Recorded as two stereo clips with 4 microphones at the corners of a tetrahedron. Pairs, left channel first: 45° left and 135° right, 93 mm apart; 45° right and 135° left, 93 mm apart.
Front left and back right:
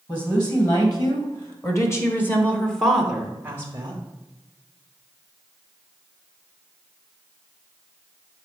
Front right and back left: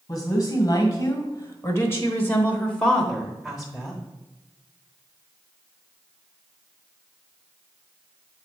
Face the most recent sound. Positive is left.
turn(degrees=-155)